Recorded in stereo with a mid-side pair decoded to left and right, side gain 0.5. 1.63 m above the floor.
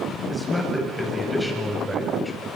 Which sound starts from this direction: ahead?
A man speaking, at 0.3 s.